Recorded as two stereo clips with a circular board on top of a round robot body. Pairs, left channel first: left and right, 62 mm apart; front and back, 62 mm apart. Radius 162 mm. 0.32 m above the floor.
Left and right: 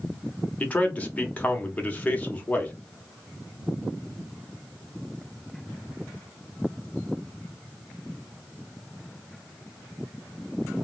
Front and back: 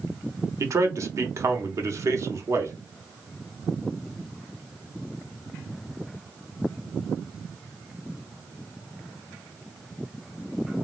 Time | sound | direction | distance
0.6 | a man speaking | 155° left | 1.2 m